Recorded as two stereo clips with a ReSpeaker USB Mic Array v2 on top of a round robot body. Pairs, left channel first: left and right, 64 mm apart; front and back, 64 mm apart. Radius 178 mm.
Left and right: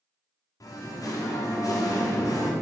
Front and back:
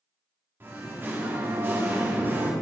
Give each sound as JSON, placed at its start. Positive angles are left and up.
{"t": 0.6, "sound": "singing", "azimuth_deg": 125, "distance_m": 1.3}